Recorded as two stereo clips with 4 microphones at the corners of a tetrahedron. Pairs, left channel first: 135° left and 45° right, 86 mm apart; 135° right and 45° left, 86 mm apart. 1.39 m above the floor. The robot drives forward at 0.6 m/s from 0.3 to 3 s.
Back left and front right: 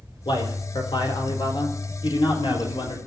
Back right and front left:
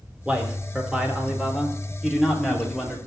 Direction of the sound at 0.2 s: 120° left.